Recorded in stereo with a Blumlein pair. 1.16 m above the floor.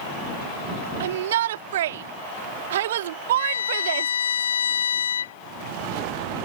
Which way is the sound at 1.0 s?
60° right.